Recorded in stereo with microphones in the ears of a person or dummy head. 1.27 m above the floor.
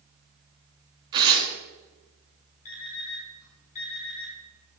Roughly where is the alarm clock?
Left.